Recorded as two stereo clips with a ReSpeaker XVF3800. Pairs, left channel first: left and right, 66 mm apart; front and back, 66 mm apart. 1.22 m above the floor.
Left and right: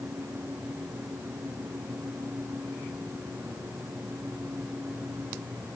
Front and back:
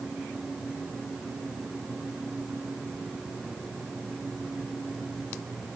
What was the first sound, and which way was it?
Only background noise.